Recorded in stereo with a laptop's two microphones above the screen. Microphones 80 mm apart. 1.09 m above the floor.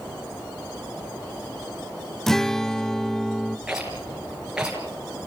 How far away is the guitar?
About 0.7 m.